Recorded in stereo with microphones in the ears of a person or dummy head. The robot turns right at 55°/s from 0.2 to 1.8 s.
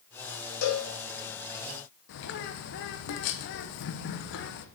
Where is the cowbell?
60° left (ahead or behind), 1.3 m; by 0.9 s 45° left (ahead or behind), 1.3 m.